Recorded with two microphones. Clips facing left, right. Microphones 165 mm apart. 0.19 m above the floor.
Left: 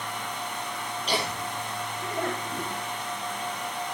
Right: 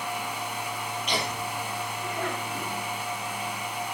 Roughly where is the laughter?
Left.